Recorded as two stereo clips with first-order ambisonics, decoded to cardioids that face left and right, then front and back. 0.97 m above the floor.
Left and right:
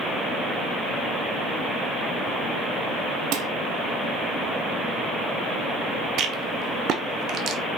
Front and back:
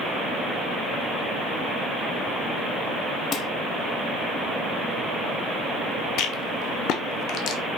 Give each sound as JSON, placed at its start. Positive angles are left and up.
{"t": 3.3, "sound": "dishes clattering", "azimuth_deg": -55, "distance_m": 0.9}
{"t": 6.2, "sound": "a rattle", "azimuth_deg": -40, "distance_m": 1.0}